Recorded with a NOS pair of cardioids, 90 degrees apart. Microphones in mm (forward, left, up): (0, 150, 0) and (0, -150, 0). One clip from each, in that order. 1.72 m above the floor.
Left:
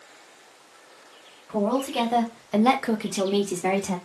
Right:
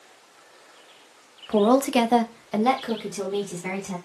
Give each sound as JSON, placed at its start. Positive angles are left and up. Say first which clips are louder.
{"t": 1.5, "sound": "a woman speaking", "louder": "right 6 dB", "azimuth_deg": -70, "distance_m": 0.8}